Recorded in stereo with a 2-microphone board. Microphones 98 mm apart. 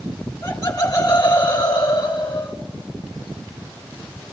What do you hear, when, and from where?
0.2 s laughter: 35° left (ahead or behind), 2 m; by 2.6 s 55° left (ahead or behind), 3 m